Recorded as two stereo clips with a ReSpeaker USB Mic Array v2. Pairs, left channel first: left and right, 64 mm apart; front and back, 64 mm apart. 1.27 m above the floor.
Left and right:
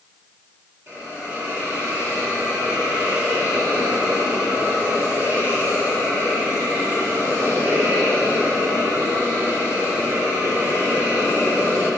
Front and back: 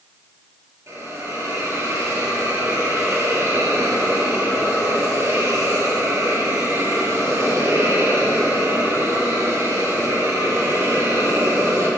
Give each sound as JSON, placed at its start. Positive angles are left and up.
{"t": 0.9, "sound": "a hiss", "azimuth_deg": -140, "distance_m": 4.5}